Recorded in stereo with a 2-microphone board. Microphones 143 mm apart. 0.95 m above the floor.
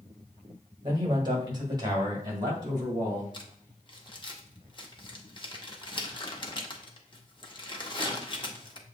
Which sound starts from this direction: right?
A man speaking, at 0.8 s.